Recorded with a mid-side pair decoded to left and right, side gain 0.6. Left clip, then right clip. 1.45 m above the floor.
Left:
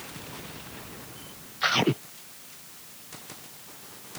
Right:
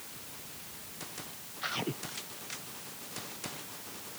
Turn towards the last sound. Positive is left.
No sound to turn to.